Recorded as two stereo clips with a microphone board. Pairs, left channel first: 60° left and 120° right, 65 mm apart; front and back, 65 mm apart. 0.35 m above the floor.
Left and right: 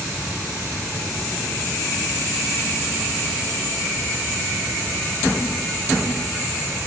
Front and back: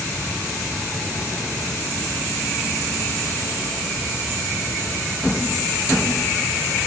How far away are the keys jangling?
No keys jangling in this recording.